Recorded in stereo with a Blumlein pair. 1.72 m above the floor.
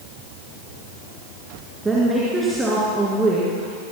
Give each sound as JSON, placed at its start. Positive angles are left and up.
{"t": 1.9, "sound": "a woman speaking", "azimuth_deg": -10, "distance_m": 2.5}